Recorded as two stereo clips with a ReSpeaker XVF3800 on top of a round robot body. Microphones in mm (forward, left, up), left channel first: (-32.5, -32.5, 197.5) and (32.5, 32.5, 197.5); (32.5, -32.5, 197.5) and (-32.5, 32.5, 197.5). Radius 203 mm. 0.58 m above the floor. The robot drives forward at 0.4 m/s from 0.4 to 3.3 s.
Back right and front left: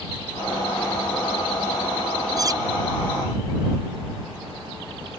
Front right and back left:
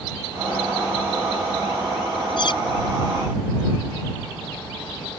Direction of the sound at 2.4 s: 5° right.